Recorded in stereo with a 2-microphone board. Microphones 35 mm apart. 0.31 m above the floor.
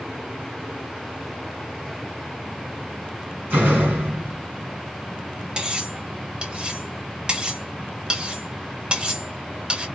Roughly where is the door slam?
Right.